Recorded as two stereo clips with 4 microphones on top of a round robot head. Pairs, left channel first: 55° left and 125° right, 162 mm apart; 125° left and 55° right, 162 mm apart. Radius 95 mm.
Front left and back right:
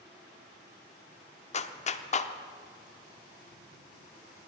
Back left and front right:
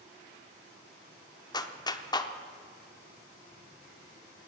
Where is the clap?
75° left, 0.9 m.